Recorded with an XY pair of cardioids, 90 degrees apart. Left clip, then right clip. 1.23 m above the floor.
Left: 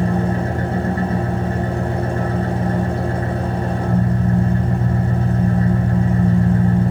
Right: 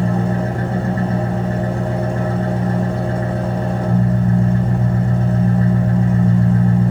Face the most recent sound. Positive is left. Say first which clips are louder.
# even
turn(degrees=5)